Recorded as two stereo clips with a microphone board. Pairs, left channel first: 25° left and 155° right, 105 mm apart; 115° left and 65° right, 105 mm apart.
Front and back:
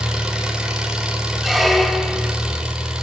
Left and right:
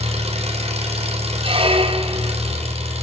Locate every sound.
0.0 s an engine running: 75° right, 4 m
1.4 s a squeak: 65° right, 2 m